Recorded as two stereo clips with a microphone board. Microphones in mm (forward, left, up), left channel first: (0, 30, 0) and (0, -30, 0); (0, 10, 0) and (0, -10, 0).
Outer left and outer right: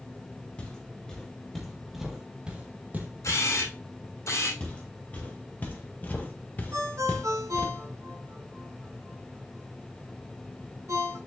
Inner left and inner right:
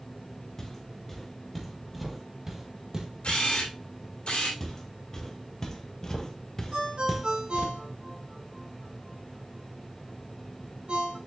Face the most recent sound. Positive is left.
turn(degrees=-70)  # may be behind; listen again after turning